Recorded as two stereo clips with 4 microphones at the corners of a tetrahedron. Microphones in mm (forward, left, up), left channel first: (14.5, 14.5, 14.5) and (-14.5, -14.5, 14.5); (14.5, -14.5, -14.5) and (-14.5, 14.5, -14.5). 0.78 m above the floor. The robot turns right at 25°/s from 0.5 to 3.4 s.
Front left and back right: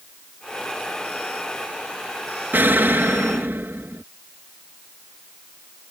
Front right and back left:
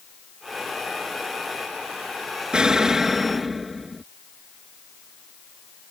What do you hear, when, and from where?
2.5 s an explosion: 160° right; by 4.0 s 140° right